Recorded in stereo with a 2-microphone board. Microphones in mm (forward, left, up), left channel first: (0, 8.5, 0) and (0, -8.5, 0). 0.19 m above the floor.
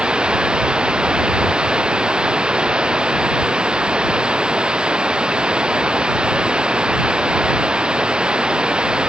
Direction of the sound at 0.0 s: 55° right (ahead or behind).